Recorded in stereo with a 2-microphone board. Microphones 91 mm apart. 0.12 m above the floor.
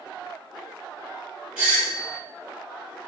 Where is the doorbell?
10° right (ahead or behind), 1.7 m.